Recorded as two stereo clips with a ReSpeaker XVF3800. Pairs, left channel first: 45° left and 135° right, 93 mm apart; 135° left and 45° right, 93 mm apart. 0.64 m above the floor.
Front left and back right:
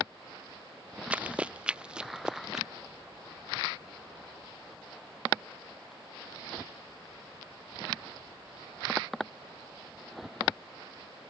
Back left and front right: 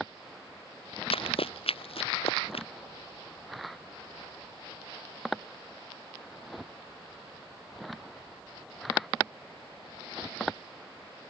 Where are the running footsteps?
150° left; by 2.7 s 140° left.